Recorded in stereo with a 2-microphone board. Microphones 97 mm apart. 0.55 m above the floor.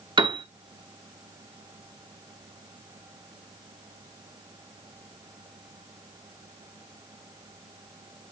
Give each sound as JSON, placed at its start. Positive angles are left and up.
{"t": 0.2, "sound": "a piano", "side_deg": -55, "distance_m": 0.6}